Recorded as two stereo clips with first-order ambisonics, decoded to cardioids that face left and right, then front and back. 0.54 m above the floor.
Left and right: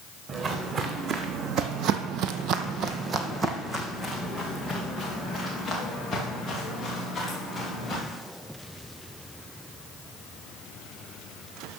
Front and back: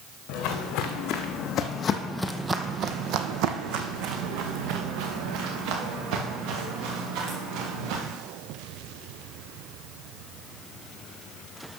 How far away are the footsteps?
About 2 m.